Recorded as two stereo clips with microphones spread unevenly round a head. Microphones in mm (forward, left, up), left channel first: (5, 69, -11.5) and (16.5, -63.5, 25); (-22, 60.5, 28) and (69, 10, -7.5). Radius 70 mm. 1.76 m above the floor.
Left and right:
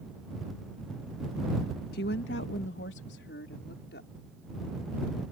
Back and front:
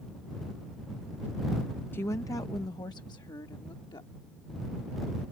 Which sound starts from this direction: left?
A woman speaking, at 1.9 s.